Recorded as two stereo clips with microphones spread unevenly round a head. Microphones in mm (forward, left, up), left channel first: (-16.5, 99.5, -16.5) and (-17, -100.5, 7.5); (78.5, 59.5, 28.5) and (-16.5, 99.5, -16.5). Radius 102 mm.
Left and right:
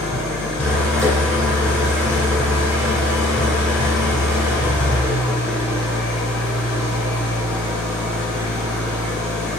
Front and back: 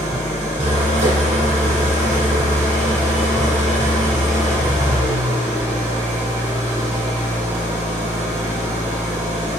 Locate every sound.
0.0 s an engine running: 175° right, 1.7 m